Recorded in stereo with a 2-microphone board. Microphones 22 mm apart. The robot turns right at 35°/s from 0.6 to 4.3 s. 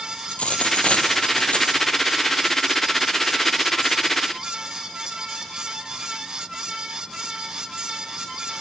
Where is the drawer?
No drawer in this recording.